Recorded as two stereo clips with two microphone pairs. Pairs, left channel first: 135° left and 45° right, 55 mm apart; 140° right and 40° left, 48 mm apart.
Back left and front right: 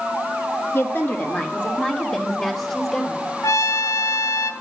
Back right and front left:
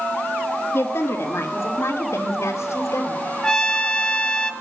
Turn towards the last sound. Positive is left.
turn(degrees=145)